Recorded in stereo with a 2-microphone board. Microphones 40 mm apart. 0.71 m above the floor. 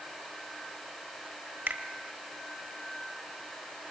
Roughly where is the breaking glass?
I don't hear breaking glass.